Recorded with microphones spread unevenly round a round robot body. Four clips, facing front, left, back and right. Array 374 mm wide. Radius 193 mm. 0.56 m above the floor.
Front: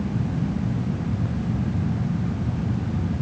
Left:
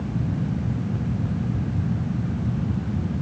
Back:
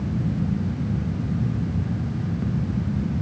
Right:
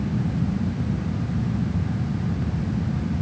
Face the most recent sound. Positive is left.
No sound to turn to.